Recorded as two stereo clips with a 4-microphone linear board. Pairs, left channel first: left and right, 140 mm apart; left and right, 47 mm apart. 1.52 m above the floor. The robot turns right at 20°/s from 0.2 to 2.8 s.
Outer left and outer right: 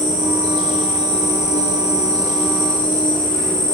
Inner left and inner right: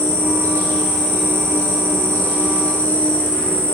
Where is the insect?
85° left, 2.5 m; by 3.7 s 140° left, 2.5 m.